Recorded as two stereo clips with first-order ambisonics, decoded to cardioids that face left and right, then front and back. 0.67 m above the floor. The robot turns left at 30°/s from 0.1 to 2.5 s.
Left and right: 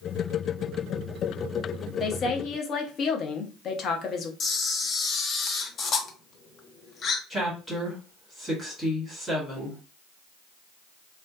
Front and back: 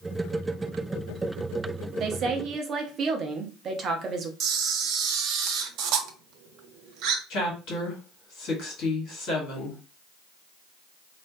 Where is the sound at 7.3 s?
5° left, 1.7 m.